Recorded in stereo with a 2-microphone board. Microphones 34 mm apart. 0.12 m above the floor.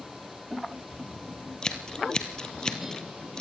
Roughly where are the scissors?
Centre.